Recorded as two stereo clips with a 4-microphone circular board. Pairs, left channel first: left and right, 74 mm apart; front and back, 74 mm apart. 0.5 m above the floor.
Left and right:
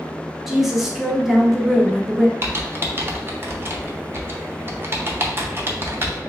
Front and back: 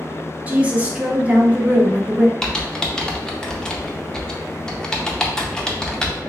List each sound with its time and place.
0.5 s a woman speaking: 170° right, 0.6 m
2.4 s typing on a keyboard: 75° right, 0.5 m